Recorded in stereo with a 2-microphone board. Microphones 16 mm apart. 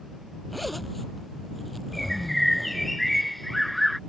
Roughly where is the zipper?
Centre.